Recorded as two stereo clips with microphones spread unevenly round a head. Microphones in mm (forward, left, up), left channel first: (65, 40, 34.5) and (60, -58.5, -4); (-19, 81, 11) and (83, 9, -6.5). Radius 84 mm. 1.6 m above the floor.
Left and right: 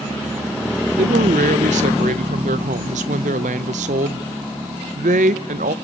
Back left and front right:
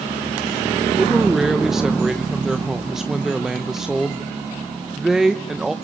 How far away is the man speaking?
About 1.2 m.